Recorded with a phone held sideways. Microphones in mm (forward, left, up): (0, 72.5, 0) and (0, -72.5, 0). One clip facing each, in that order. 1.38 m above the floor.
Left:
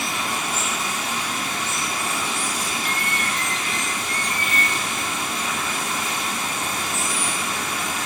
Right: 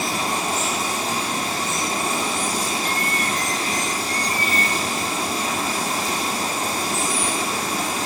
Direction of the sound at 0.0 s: 35° right (ahead or behind).